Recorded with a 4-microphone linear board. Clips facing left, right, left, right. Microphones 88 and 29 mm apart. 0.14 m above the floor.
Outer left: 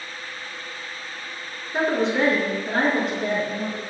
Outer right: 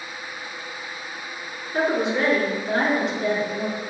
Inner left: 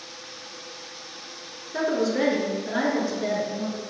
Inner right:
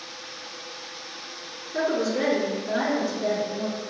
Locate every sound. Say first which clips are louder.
1.7 s a woman speaking: outer left 1 dB, inner left 1 dB; 20° left (ahead or behind), 1.7 m; by 3.8 s 55° left (ahead or behind), 2 m